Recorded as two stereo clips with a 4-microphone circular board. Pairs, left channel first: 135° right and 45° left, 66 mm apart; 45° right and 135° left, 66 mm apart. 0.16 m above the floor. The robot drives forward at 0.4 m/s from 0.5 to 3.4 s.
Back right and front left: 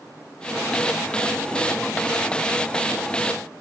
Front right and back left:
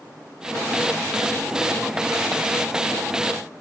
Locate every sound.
Only background noise.